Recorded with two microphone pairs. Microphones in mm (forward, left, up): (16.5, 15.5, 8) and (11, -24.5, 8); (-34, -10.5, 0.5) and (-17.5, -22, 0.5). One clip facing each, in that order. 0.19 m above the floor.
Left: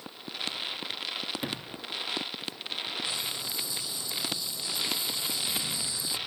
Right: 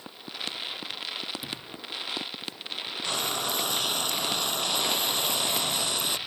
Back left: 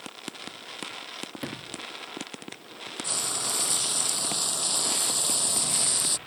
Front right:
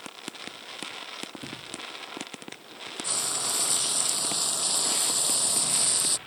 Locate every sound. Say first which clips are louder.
1.4 s a sliding door: left 2 dB, back left 2 dB; 125° left
3.0 s frying: right 5 dB, even; 120° right